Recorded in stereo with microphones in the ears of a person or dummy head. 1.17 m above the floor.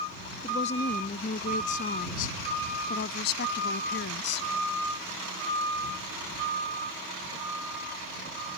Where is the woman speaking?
40° left (ahead or behind); by 4.5 s 65° left (ahead or behind).